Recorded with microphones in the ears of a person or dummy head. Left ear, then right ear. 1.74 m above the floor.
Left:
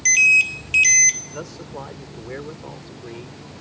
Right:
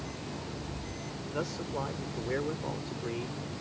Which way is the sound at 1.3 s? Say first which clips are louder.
Left 1 dB; 10° left (ahead or behind).